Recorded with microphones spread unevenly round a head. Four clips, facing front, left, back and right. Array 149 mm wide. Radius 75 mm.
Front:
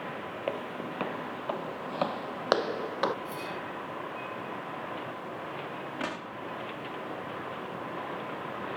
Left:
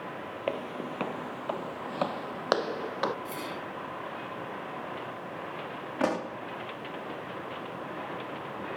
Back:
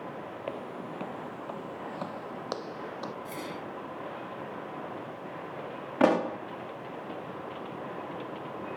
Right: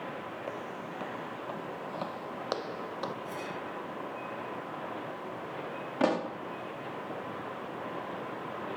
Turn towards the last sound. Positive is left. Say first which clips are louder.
# right 1 dB, back 17 dB
turn(degrees=-175)